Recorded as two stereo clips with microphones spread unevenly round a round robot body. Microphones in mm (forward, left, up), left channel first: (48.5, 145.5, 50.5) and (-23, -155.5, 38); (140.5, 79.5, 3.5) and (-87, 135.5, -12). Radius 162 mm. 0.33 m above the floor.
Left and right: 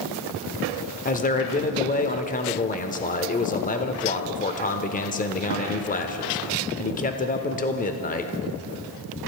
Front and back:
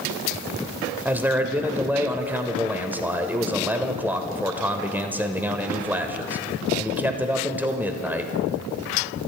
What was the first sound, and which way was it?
A man speaking, 100° left.